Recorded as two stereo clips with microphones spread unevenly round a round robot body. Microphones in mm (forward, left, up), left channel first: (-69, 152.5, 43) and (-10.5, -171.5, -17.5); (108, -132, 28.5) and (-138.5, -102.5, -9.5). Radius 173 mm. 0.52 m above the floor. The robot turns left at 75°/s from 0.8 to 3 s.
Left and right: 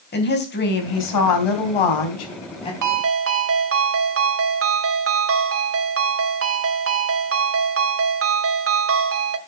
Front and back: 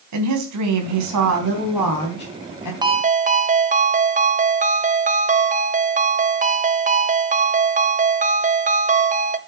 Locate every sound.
0.1 s a woman speaking: 165° left, 3.5 m; by 2.7 s 20° left, 3.5 m
2.8 s a ringtone: 115° right, 1.4 m; by 9.4 s 130° right, 1.4 m